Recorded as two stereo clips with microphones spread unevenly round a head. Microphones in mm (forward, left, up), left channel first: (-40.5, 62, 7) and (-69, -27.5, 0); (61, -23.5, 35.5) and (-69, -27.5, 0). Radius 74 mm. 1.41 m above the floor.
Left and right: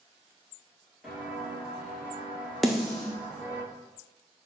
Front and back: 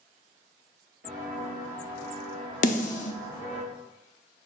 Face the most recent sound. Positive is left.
turn(degrees=-20)